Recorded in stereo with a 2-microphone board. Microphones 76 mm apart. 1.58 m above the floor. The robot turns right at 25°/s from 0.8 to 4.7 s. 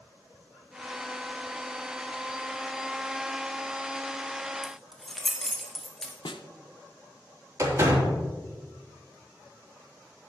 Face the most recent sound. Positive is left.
turn(degrees=-45)  # may be behind; listen again after turning